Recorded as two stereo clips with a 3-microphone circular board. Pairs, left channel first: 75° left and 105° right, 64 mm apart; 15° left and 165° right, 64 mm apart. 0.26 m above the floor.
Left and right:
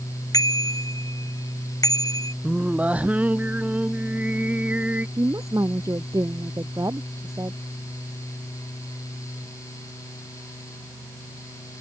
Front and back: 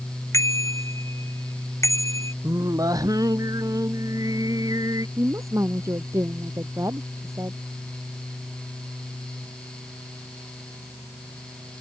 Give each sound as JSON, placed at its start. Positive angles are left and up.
{"t": 0.3, "sound": "a bicycle bell", "azimuth_deg": 55}
{"t": 2.4, "sound": "singing", "azimuth_deg": -175}
{"t": 5.2, "sound": "a woman speaking", "azimuth_deg": -130}